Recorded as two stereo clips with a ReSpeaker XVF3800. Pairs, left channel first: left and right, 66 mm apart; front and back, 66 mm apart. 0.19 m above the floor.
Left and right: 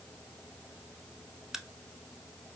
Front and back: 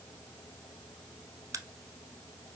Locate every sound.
1.5 s a crack: 170° right, 0.5 m